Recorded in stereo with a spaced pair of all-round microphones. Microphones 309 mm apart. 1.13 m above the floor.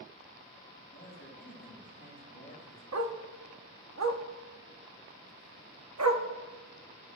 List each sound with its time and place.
0.9 s a man speaking: 35° left (ahead or behind), 5.5 m; by 2.8 s 40° left (ahead or behind), 6.5 m
2.9 s a dog barking: 60° right (ahead or behind), 0.8 m